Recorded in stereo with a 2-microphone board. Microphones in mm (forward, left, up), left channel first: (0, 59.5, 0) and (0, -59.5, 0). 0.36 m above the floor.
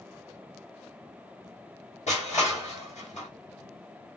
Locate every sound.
2.1 s crushing: 80° left, 2.5 m